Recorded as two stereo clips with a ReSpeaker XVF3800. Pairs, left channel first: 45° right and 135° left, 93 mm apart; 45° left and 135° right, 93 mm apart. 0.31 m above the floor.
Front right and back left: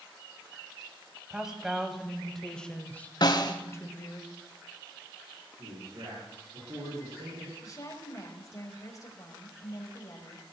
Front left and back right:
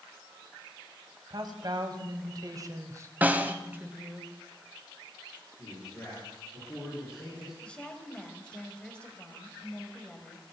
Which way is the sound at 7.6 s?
25° right.